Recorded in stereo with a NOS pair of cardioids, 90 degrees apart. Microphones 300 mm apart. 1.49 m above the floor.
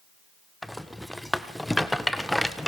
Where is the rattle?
Straight ahead, 1.4 m.